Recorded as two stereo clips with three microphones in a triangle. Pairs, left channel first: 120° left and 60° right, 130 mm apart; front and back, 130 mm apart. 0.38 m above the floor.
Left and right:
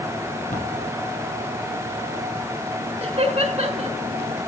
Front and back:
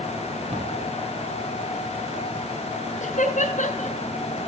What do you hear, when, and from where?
0.5 s a cupboard door: 135° left, 6.5 m
3.0 s laughter: 20° right, 5.5 m